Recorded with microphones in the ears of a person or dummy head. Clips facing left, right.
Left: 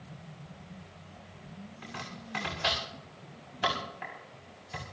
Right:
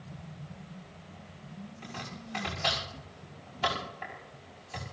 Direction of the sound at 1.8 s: 15° left (ahead or behind).